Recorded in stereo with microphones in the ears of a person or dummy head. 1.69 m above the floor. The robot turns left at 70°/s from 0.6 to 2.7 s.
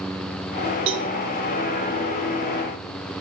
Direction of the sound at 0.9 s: 30° right (ahead or behind).